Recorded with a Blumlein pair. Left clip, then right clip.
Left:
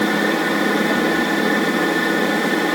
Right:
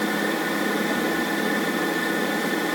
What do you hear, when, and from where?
0.0 s a machine running: 20° left